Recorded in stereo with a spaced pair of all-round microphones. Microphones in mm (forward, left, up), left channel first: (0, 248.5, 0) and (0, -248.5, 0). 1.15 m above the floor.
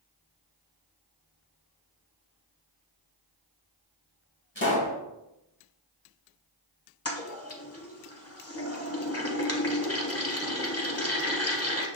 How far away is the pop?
About 2 m.